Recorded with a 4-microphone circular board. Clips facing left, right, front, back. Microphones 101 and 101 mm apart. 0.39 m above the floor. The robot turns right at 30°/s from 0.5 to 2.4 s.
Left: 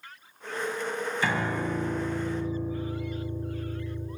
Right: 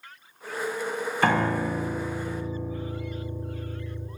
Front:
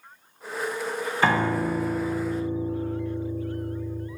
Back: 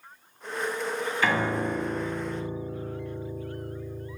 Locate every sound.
1.2 s a piano: 55° right, 0.7 m; by 4.1 s 20° right, 0.7 m